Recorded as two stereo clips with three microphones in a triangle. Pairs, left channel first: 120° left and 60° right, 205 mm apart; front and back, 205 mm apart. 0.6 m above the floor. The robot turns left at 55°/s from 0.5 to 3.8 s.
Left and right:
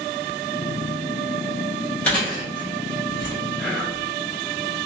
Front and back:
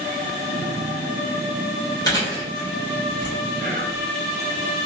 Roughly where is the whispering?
Behind right.